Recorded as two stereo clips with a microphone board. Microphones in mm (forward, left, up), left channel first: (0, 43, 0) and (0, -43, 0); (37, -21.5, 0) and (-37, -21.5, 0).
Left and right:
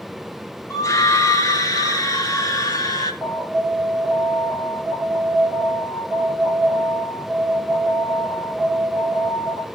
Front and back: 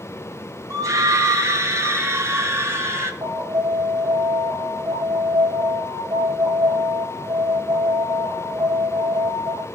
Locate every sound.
0.7 s a scream: 135° left, 2.0 m; by 3.1 s 130° left, 3 m
3.2 s an alarm: 175° left, 5.5 m